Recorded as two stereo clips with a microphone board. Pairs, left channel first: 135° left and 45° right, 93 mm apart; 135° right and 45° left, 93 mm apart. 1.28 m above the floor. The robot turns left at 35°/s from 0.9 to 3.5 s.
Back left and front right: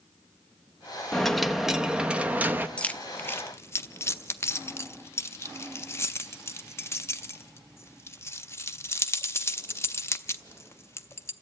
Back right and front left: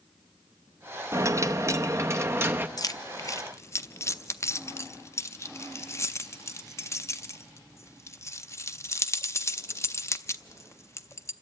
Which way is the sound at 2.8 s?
150° right.